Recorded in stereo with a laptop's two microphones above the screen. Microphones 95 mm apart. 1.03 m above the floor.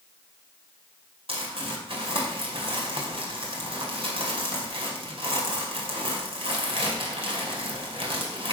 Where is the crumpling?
75° right (ahead or behind), 2.5 m.